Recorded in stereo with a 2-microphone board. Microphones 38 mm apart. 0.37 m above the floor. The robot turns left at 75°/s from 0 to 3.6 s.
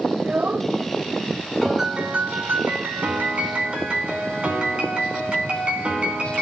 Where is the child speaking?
55° right, 0.7 m; by 0.7 s 100° right, 0.7 m.